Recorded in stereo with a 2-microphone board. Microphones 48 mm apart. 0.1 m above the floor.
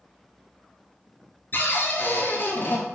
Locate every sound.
1.5 s a cupboard door: 40° left (ahead or behind), 1.0 m